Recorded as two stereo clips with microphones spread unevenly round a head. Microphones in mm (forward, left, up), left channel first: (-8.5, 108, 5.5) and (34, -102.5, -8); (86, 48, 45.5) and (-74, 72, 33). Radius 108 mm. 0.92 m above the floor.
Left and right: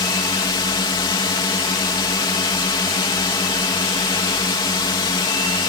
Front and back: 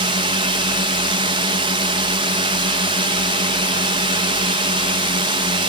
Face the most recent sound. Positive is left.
turn(degrees=160)